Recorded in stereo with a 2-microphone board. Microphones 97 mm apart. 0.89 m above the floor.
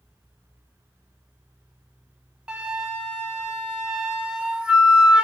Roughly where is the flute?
Centre.